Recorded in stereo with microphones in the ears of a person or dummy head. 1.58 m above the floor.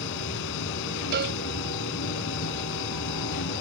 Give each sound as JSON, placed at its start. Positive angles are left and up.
{"t": 0.0, "sound": "a machine running", "side_deg": 65}
{"t": 1.1, "sound": "a cowbell", "side_deg": -60}